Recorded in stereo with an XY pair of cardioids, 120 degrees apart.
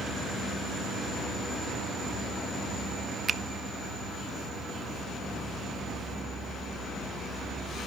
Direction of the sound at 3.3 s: 25° right.